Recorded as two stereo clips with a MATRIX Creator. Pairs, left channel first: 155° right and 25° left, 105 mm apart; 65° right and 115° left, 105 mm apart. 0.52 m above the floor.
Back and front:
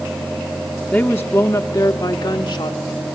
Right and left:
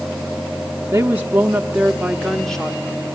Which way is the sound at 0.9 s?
135° left.